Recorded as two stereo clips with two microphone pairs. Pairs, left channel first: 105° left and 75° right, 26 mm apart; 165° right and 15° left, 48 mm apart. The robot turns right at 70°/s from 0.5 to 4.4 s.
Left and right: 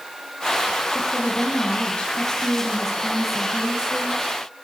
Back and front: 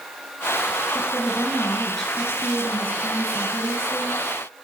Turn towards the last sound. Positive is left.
turn(degrees=-75)